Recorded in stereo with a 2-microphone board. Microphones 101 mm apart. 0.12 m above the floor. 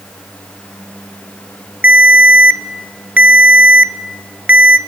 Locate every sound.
1.8 s a ringtone: 15° right (ahead or behind), 0.6 m